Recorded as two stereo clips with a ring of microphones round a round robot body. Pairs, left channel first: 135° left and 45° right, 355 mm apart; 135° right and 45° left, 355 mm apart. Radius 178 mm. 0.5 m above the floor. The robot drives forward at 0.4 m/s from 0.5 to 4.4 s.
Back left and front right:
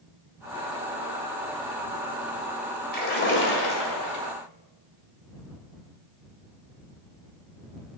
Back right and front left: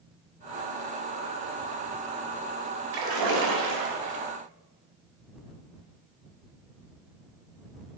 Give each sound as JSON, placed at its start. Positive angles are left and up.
{"t": 2.9, "sound": "a splash", "azimuth_deg": 70, "distance_m": 2.0}